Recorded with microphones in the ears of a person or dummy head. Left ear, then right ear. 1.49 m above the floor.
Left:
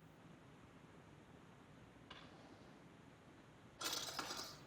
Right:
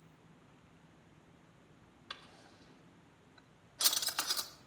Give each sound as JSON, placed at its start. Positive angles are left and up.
{"t": 2.1, "sound": "a drawer", "side_deg": -60, "distance_m": 2.0}